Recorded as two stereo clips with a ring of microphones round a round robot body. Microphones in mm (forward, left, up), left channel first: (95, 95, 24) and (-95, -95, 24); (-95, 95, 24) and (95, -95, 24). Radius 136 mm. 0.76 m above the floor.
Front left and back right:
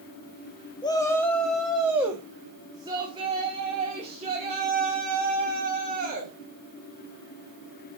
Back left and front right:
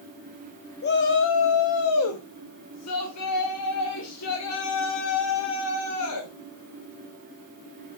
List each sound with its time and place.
0.8 s a shout: 110° left, 0.9 m; by 6.3 s 165° left, 3 m